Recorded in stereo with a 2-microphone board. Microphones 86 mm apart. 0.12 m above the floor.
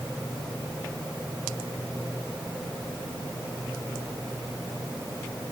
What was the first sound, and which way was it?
Only background noise.